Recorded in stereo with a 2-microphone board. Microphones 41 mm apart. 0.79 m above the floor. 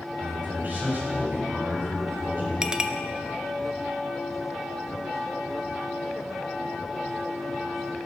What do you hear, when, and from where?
0.2 s a man speaking: 45° right (ahead or behind), 4.5 m
2.6 s a clink: 15° right (ahead or behind), 0.6 m